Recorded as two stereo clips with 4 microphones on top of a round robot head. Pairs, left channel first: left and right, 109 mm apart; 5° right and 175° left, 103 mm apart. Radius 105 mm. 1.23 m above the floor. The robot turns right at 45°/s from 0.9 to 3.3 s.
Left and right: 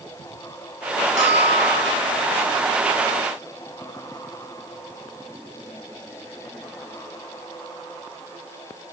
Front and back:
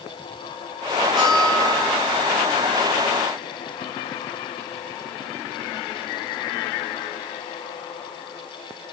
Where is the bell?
95° right, 8 m; by 2.0 s 60° right, 8 m.